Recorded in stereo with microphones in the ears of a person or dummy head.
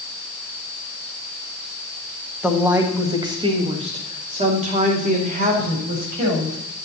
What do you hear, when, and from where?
2.4 s a woman speaking: 5° right (ahead or behind), 1.6 m; by 6.6 s 45° right (ahead or behind), 3.5 m